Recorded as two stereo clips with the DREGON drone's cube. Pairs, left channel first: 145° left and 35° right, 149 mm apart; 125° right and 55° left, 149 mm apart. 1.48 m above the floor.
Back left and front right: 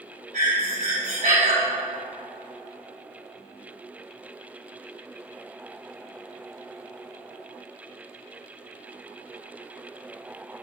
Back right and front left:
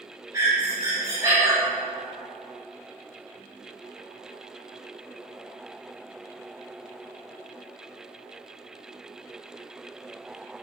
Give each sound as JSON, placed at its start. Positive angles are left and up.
{"t": 0.3, "sound": "breathing", "azimuth_deg": -15, "distance_m": 3.5}